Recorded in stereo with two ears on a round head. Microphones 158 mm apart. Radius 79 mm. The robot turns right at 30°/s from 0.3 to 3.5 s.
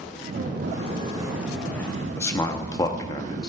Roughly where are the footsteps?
Right.